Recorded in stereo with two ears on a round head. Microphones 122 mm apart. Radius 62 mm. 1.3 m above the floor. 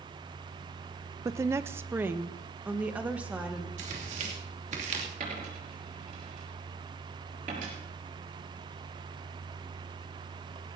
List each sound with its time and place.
1.2 s a woman speaking: 20° right (ahead or behind), 0.5 m; by 3.7 s 10° right (ahead or behind), 2.0 m
3.8 s tearing paper: 50° right (ahead or behind), 2.5 m
5.2 s a dropped coin: 60° right (ahead or behind), 6 m